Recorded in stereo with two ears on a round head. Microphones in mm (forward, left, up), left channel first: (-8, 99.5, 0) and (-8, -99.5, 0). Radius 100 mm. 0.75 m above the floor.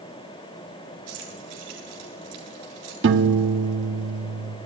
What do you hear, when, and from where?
1.1 s keys jangling: 85° right, 9.5 m
3.0 s a piano: 55° right (ahead or behind), 1.2 m